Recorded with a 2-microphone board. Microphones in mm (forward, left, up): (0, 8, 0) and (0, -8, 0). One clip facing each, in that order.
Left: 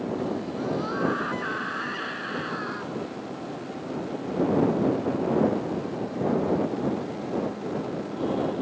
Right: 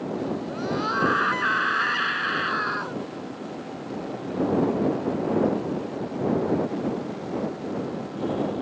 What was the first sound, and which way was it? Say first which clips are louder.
A scream: right 2 dB; 30° right (ahead or behind).